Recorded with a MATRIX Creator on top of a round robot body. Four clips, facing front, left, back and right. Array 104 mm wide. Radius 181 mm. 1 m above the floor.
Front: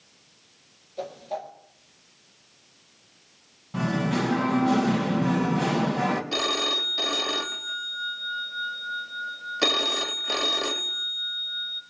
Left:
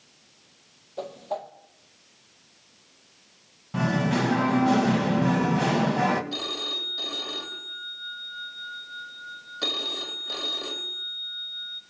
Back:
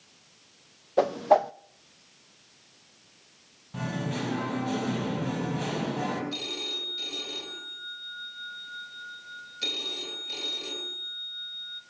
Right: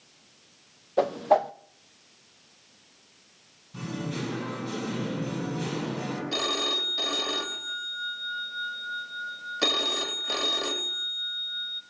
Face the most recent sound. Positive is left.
turn(degrees=-20)